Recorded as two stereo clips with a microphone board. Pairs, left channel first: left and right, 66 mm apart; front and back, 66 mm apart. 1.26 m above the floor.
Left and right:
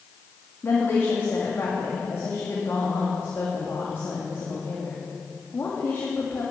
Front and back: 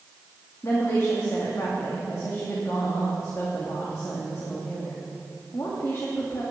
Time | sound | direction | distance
0.6 | a woman speaking | 40° left | 2.5 m